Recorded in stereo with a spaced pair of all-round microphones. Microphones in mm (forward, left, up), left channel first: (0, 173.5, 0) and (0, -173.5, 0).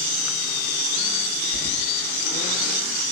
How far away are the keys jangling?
About 1.5 m.